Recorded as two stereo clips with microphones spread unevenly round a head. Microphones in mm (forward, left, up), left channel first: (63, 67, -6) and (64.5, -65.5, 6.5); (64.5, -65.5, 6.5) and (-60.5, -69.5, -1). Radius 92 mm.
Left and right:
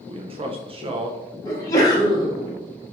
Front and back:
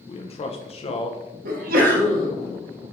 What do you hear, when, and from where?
0.1 s a man speaking: 40° right, 0.5 m
1.4 s a sneeze: 165° left, 1.2 m